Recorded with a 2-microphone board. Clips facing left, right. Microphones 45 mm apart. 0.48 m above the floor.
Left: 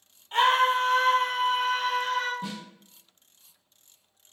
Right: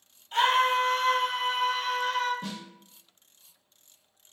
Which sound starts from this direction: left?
A scream, at 0.3 s.